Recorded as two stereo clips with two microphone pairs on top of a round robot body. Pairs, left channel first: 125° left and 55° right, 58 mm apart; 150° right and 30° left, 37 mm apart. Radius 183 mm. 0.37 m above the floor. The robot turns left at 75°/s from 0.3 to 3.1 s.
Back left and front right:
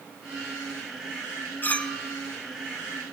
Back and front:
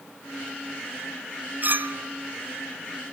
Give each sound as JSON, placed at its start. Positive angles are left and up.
{"t": 1.6, "sound": "a clink", "azimuth_deg": 70, "distance_m": 1.9}